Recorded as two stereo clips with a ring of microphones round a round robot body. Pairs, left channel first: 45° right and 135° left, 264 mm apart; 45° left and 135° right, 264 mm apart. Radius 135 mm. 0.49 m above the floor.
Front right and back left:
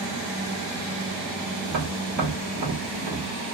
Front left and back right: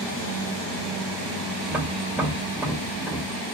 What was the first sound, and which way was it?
Tapping, 140° left.